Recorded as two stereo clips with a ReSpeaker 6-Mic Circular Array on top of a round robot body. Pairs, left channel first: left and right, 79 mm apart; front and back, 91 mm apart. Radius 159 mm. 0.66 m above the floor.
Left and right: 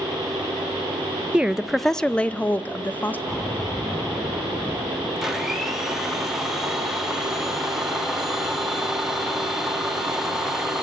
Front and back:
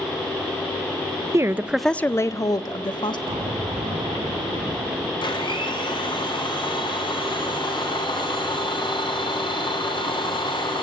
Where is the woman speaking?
160° right, 0.7 m; by 3.2 s 25° left, 1.2 m.